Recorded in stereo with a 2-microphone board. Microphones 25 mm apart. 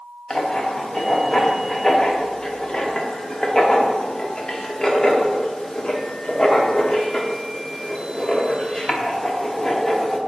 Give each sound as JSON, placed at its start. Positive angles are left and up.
{"t": 0.3, "sound": "writing", "side_deg": 20, "distance_m": 0.9}